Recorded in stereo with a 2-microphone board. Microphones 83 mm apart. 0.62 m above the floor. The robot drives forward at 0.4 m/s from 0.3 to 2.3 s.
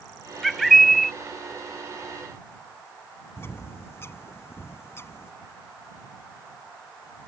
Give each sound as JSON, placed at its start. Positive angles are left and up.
{"t": 0.4, "sound": "a bird", "side_deg": 0}
{"t": 3.4, "sound": "a bird", "side_deg": 30}